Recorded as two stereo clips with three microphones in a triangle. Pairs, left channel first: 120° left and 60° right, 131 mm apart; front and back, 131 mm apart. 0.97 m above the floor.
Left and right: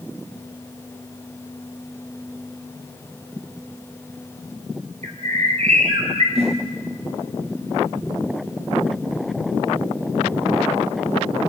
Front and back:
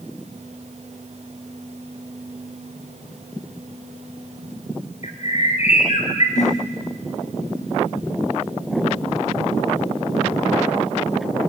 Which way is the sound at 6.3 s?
25° right.